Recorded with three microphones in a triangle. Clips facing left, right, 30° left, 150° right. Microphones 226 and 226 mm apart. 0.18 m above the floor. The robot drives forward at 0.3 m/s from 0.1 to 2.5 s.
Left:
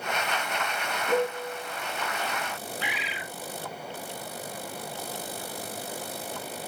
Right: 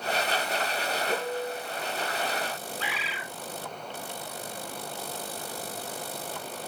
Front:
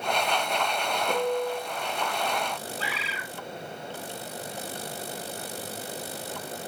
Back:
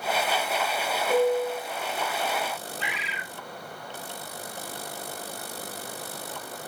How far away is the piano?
About 3 m.